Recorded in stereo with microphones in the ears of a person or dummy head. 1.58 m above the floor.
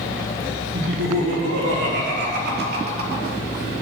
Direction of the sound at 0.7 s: 85° right.